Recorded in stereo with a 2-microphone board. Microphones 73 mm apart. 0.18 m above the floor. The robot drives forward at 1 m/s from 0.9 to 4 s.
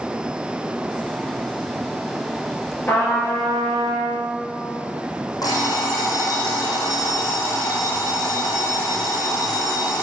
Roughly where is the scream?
No scream in this recording.